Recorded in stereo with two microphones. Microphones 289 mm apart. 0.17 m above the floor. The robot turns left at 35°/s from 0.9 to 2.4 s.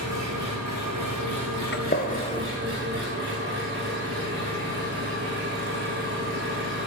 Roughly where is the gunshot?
Left.